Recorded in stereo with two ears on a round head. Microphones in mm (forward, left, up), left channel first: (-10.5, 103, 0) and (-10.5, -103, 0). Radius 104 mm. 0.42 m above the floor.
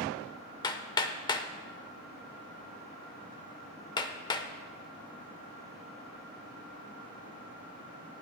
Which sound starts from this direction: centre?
Hammering, at 0.6 s.